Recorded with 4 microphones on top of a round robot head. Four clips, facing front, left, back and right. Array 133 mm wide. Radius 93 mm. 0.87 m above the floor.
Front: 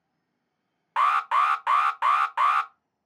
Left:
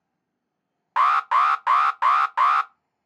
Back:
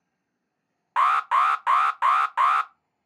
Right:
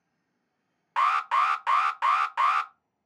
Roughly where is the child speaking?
I don't hear a child speaking.